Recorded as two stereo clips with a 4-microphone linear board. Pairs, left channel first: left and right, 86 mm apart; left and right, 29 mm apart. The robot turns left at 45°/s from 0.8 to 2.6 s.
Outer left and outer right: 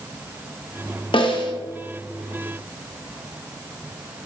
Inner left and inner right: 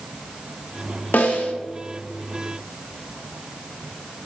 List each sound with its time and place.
1.1 s a snare drum: 75° left (ahead or behind), 0.5 m; by 1.5 s 60° left (ahead or behind), 0.5 m